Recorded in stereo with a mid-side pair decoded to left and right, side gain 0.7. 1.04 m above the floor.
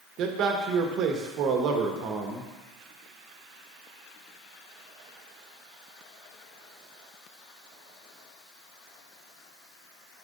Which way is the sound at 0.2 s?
60° right.